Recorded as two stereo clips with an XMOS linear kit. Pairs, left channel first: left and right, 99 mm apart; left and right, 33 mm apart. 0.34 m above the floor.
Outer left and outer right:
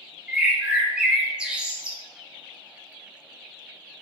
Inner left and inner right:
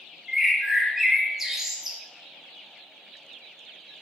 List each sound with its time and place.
0.3 s a bird: 10° right (ahead or behind), 0.6 m